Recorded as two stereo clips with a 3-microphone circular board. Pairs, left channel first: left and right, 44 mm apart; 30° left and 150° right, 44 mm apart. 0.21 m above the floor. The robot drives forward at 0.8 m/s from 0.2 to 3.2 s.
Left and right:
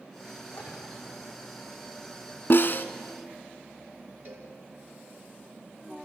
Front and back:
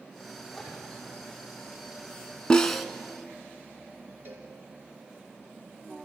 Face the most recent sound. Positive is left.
turn(degrees=-120)